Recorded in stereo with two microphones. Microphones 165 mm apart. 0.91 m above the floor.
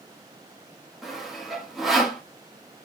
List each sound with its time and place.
1.0 s sawing: centre (ahead or behind), 1.7 m